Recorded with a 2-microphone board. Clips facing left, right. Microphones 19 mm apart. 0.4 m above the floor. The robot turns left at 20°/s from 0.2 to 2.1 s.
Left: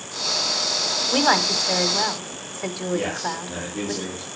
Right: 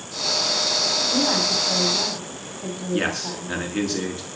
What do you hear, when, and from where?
1.1 s a woman speaking: 70° left (ahead or behind), 2 m; by 3.9 s 55° left (ahead or behind), 2 m
2.9 s a man speaking: 75° right (ahead or behind), 5.5 m